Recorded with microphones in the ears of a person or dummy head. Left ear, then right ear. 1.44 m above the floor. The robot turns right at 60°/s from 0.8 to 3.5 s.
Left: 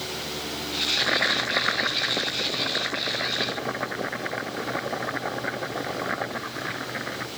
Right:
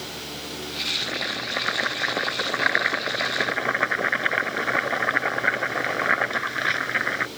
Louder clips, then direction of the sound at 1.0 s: Left 5 dB; 140° left.